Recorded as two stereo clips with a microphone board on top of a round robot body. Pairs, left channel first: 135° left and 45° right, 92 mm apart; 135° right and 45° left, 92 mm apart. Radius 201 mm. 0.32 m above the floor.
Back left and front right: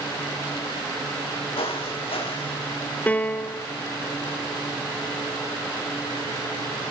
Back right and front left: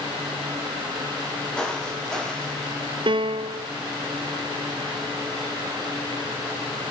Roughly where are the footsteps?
Behind left.